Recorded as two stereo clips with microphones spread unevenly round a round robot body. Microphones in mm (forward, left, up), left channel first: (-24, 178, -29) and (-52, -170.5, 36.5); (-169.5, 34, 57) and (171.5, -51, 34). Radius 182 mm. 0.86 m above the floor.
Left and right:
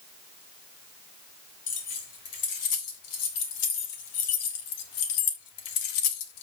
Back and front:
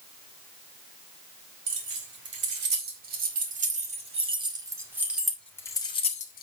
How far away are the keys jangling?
About 3.5 m.